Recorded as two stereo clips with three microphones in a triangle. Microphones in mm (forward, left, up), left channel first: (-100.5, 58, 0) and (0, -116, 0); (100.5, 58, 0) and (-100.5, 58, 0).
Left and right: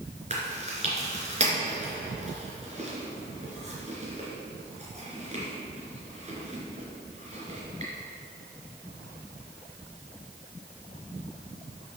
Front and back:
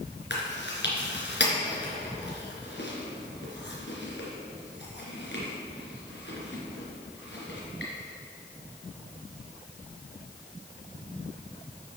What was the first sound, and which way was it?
Chewing, 10° right.